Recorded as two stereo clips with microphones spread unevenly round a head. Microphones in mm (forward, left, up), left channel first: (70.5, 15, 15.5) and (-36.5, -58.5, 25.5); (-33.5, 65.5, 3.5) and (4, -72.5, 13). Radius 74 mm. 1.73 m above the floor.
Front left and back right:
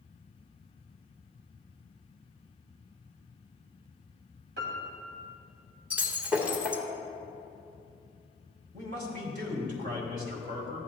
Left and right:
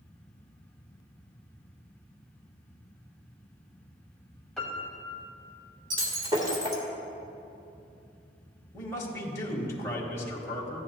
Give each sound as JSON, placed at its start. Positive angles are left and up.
{"t": 4.6, "sound": "a piano", "azimuth_deg": -170, "distance_m": 1.8}
{"t": 5.9, "sound": "breaking glass", "azimuth_deg": -80, "distance_m": 1.6}
{"t": 8.7, "sound": "a man speaking", "azimuth_deg": 175, "distance_m": 1.7}